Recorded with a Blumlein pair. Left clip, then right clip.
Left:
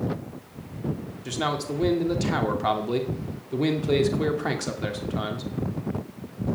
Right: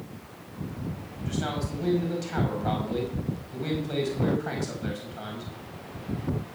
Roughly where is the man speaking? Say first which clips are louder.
Left 5 dB; ahead left.